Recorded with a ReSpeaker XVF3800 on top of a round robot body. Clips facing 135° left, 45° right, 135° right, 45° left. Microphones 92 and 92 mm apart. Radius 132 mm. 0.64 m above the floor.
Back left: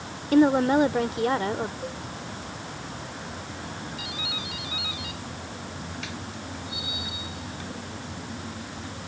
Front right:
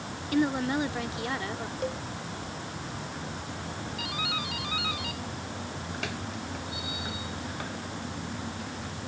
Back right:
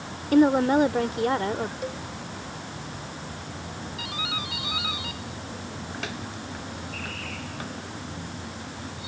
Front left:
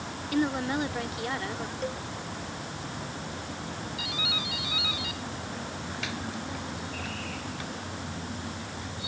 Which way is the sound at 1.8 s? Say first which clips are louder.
Front right 3 dB, back right 1 dB; 55° right.